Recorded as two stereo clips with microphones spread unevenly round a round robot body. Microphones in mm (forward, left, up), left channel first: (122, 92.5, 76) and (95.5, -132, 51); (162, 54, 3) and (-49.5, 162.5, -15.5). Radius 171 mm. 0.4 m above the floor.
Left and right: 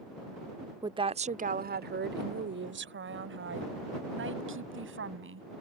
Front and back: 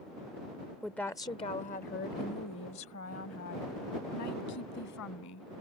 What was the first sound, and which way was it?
A woman speaking, 130° right.